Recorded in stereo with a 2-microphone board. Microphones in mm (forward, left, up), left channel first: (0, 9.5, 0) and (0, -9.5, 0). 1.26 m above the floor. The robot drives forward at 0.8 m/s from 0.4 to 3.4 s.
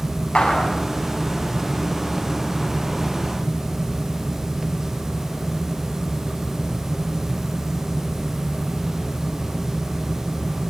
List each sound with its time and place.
0.3 s a clap: 75° left (ahead or behind), 7.5 m